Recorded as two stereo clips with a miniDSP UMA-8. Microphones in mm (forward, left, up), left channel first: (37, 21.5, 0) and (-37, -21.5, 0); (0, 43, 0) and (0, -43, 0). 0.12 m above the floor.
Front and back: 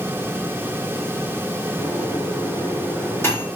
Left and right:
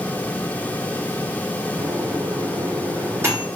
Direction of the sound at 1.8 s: 30° right.